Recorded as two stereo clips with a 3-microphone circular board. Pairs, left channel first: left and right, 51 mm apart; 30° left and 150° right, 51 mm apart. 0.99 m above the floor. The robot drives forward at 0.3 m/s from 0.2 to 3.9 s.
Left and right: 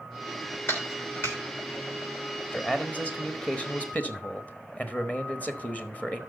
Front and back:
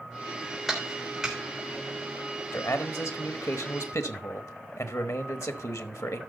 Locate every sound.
0.7 s a clap: 130° left, 3 m
2.5 s a man speaking: 25° left, 1.4 m; by 6.2 s 30° left, 1.1 m